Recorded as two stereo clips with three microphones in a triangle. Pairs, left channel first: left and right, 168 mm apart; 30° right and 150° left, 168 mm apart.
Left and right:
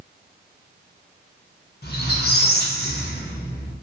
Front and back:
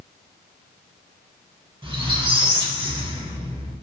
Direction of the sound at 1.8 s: 95° left.